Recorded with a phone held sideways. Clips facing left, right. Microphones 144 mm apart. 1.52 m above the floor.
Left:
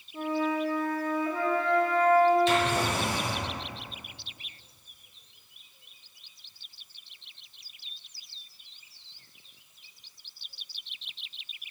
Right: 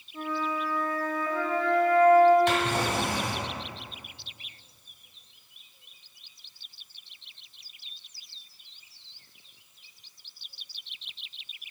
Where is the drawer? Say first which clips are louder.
Left 1 dB; 55° right (ahead or behind), 2.5 m.